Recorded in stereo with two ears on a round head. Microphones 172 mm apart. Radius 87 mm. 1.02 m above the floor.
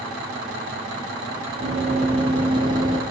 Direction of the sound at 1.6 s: 35° right (ahead or behind).